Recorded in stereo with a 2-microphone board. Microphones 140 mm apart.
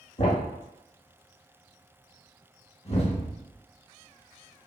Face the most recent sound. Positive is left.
turn(degrees=45)  # may be behind; listen again after turning